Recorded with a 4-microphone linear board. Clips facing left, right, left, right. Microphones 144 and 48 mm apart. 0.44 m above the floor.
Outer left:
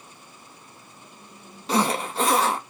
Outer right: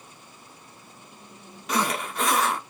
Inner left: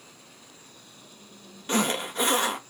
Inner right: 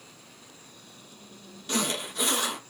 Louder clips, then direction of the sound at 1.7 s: Outer left 4 dB, inner left 4 dB; 30° left (ahead or behind).